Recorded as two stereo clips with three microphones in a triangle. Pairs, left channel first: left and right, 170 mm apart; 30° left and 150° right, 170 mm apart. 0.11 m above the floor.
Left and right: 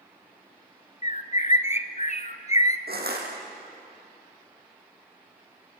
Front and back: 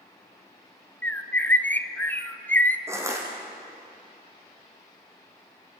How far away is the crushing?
About 4.5 m.